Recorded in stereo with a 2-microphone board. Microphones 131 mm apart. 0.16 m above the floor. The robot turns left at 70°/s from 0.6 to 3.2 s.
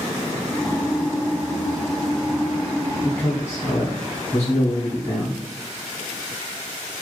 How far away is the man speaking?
About 1.0 m.